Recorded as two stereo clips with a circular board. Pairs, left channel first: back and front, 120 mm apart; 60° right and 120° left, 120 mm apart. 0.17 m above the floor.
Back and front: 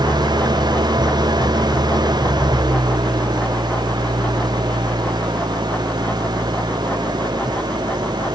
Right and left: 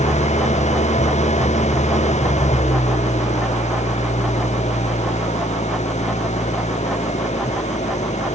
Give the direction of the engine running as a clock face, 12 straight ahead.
2 o'clock.